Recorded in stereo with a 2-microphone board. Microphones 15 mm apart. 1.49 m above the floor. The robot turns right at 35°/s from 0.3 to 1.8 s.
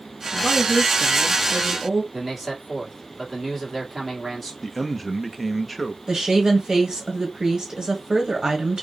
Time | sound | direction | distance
0.3 | a woman speaking | 130° left | 0.9 m
2.1 | a man speaking | 5° right (ahead or behind) | 1.8 m
4.6 | a man speaking | centre (ahead or behind) | 0.7 m
6.1 | a woman speaking | 35° right (ahead or behind) | 1.4 m